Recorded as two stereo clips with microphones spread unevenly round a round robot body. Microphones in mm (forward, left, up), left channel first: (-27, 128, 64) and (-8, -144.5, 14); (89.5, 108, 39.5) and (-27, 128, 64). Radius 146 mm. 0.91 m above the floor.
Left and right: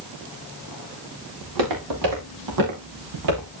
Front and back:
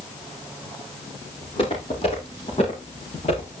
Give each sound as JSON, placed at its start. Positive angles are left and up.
{"t": 1.4, "sound": "footsteps", "azimuth_deg": -80, "distance_m": 7.0}